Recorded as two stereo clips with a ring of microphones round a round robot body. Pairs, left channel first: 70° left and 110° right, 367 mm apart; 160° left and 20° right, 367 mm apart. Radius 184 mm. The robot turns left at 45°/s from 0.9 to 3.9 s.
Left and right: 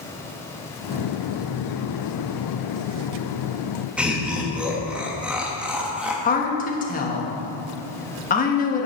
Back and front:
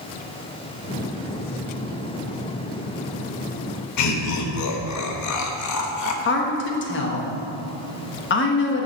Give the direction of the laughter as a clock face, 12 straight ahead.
7 o'clock.